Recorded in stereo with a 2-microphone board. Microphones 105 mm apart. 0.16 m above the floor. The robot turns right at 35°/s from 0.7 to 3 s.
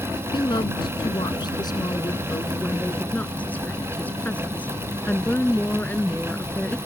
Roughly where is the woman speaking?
Left.